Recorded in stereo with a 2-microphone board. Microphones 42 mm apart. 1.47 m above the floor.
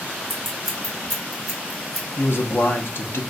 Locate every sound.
0.3 s scissors: 5° left (ahead or behind), 1.0 m
2.2 s a man speaking: 65° left (ahead or behind), 0.5 m